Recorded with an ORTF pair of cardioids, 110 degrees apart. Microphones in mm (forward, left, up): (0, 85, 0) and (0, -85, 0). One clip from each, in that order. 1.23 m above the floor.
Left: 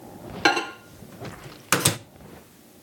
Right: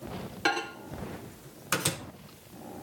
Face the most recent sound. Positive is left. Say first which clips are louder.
# left 7 dB
turn(degrees=35)